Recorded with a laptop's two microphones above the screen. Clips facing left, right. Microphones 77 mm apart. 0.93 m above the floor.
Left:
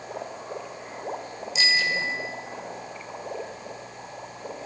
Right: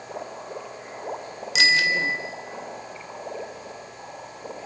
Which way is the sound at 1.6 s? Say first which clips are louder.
Right 4 dB; 85° right.